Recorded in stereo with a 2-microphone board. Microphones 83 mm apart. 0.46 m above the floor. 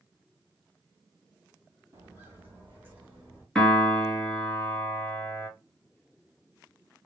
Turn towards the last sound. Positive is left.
turn(degrees=5)  # may be behind; listen again after turning